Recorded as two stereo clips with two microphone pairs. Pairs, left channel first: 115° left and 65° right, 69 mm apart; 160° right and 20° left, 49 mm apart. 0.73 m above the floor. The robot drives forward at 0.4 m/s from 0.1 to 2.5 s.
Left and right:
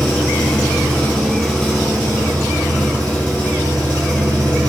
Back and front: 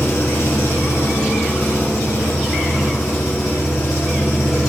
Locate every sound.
0.0 s an engine running: 170° right, 1.3 m; by 4.7 s 175° right, 2 m